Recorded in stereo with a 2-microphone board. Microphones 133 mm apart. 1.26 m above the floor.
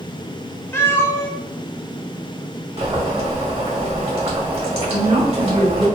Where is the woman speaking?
50° right (ahead or behind), 1.5 m.